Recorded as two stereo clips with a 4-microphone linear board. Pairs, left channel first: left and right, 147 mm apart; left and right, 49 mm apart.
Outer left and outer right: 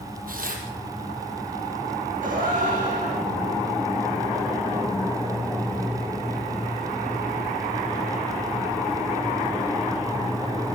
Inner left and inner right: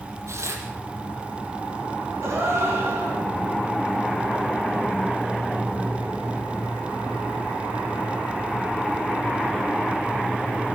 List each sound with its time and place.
0.3 s tearing paper: 75° right (ahead or behind), 5 m
2.2 s a gasp: 65° right (ahead or behind), 9.5 m